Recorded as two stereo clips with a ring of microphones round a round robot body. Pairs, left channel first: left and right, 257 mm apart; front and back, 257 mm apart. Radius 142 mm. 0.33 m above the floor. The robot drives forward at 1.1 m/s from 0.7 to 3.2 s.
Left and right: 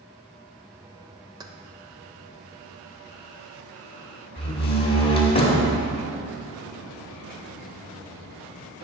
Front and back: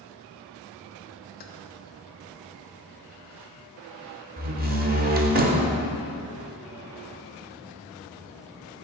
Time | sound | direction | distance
1.4 | keys jangling | 25° right | 0.8 m
4.4 | a door slam | 150° left | 1.2 m